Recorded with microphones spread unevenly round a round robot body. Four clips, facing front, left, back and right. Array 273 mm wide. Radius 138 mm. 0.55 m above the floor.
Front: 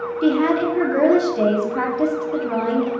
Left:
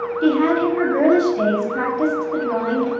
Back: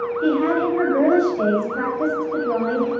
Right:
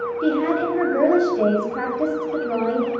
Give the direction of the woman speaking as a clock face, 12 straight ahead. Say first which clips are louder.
Left 4 dB, front 2 dB; 10 o'clock.